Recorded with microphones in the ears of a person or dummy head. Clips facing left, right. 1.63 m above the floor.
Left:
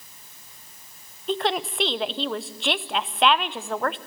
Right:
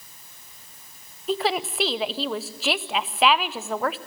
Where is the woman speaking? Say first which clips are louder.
Right 1 dB; centre (ahead or behind), 0.5 m.